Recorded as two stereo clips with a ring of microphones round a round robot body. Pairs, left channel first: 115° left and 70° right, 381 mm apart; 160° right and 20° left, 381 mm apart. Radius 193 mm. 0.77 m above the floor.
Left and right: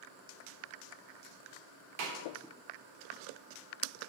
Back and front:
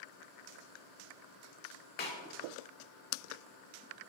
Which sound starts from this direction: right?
A snare drum, at 2.0 s.